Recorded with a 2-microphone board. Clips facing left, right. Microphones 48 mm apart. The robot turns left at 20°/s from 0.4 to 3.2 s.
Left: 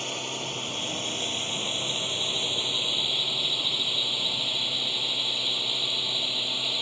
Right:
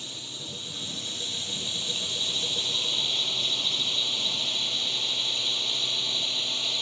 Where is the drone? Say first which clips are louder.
Left 8 dB; 65° left; by 6.8 s 10° left.